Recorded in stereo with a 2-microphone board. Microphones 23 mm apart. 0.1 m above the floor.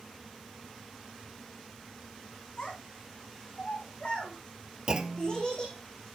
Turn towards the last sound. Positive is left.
turn(degrees=-35)  # may be behind; listen again after turning